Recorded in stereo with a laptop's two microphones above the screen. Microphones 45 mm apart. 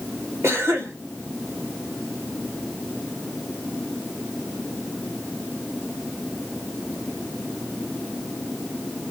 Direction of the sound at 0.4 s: 80° right.